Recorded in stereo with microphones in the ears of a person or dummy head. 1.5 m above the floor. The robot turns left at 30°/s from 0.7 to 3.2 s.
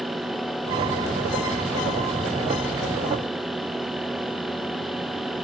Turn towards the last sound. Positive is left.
No sound to turn to.